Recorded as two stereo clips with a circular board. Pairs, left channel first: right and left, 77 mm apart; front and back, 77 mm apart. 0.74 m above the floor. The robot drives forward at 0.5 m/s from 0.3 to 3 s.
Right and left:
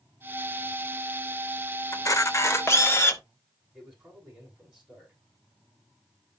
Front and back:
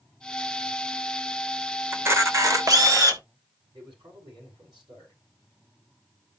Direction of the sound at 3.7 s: 165° left.